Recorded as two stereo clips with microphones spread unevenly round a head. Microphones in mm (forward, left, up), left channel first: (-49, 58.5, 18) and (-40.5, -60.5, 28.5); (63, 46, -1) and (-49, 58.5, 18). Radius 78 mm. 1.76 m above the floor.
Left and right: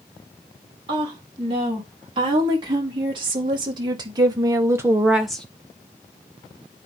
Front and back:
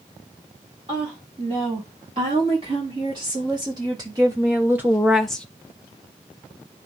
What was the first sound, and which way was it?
A woman speaking, 130° right.